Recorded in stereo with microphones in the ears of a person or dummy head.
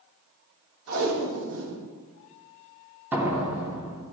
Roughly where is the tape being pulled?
Right.